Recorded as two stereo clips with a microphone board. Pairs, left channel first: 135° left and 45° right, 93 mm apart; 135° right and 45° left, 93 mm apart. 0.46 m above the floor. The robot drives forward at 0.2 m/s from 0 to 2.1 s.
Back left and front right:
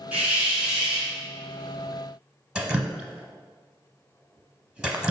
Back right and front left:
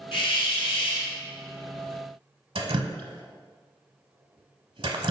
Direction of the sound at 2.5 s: 35° left.